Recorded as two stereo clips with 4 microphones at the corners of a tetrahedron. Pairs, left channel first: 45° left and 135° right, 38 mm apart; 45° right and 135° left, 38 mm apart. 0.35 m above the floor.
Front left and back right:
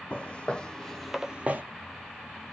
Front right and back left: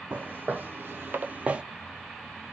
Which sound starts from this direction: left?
Footsteps, at 0.1 s.